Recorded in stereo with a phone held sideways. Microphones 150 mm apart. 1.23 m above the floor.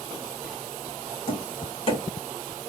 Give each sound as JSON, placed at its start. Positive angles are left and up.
{"t": 1.3, "sound": "tapping", "side_deg": 40, "distance_m": 2.0}